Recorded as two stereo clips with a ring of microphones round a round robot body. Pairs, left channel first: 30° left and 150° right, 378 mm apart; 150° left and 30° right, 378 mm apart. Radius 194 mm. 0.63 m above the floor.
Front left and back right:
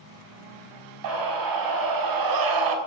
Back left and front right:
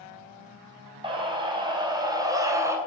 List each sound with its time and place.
1.0 s a scream: 110° right, 4.5 m; by 2.8 s 115° right, 3 m